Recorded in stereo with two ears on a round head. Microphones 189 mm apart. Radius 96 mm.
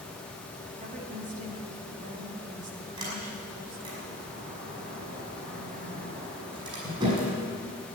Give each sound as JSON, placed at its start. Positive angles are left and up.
{"t": 0.8, "sound": "a woman speaking", "side_deg": -40, "distance_m": 2.5}
{"t": 3.0, "sound": "a sliding door", "side_deg": -25, "distance_m": 5.5}